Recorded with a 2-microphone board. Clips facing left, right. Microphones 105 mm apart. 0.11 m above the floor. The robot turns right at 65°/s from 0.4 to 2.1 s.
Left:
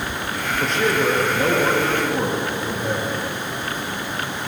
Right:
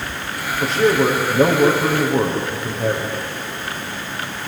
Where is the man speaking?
Straight behind, 5.5 m; by 3.1 s 85° right, 5.5 m.